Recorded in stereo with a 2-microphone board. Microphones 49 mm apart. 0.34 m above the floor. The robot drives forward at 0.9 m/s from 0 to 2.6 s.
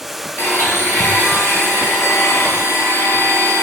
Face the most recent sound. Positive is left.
turn(degrees=75)  # may be behind; listen again after turning